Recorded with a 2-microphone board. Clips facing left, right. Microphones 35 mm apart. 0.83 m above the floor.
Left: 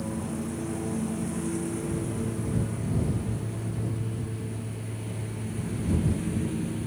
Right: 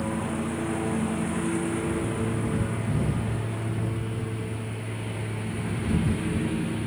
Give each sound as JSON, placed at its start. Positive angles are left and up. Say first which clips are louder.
{"t": 0.0, "sound": "a lawn mower", "louder": "right 4 dB", "side_deg": -45}